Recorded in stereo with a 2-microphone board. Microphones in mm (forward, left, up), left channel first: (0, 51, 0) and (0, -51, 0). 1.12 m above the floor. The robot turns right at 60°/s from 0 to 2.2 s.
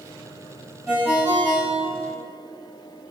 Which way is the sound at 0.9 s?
175° right.